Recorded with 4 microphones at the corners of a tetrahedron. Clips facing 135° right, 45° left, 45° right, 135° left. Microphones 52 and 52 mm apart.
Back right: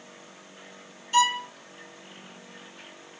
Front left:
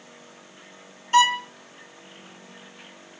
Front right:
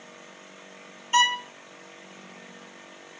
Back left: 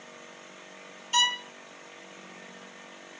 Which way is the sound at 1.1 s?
10° left.